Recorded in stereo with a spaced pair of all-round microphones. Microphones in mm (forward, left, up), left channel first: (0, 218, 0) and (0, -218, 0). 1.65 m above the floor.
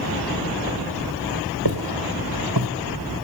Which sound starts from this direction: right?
Footsteps, at 1.6 s.